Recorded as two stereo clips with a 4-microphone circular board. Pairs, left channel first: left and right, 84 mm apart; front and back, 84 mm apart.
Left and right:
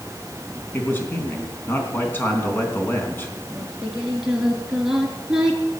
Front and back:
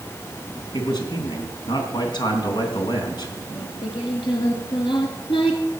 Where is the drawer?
No drawer in this recording.